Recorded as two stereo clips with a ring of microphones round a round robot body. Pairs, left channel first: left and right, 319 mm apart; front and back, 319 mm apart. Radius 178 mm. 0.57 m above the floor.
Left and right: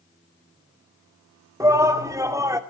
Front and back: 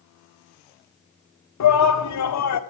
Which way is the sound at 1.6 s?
10° right.